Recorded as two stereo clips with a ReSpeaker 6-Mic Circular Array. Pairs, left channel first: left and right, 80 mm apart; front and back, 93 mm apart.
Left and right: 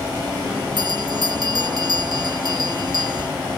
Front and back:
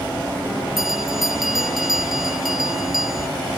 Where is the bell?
95° right.